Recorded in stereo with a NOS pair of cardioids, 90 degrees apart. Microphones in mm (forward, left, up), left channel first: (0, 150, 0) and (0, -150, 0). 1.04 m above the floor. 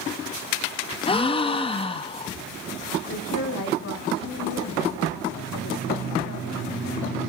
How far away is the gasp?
About 0.7 m.